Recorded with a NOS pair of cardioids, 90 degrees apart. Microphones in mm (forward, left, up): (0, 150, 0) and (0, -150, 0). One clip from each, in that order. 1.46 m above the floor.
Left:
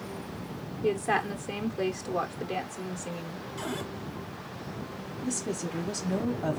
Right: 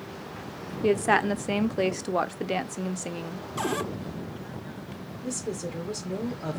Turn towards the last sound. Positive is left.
turn(degrees=10)